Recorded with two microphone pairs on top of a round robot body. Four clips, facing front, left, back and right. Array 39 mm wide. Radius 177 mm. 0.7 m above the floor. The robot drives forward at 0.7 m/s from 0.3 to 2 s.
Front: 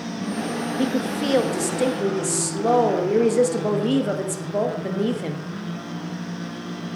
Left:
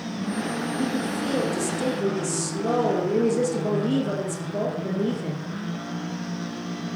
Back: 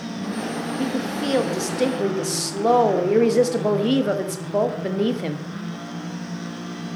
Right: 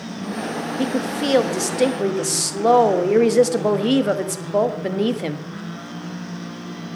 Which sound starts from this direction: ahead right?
A woman speaking, at 0.8 s.